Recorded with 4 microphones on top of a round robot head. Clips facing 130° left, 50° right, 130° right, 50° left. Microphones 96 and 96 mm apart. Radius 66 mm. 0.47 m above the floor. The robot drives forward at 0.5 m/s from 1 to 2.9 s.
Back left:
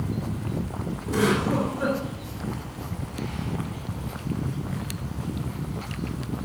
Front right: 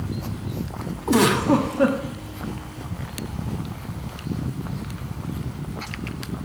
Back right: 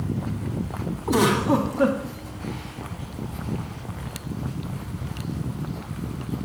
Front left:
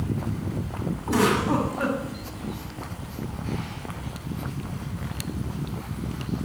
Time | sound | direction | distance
1.1 | a giggle | 55° right | 1.8 m